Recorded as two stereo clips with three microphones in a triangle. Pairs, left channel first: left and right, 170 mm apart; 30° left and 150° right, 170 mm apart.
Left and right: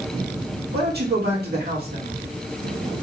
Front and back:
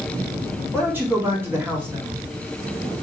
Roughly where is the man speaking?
Right.